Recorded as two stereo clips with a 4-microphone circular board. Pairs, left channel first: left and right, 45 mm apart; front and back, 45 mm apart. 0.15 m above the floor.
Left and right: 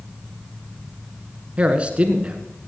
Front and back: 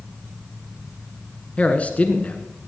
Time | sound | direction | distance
1.6 | a man speaking | 40° right | 1.5 m